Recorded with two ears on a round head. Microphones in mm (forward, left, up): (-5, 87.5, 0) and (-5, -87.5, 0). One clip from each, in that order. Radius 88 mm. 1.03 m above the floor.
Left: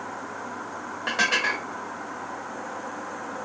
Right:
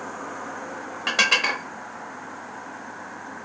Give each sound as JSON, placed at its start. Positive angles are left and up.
{"t": 1.1, "sound": "dishes clattering", "side_deg": -30, "distance_m": 0.8}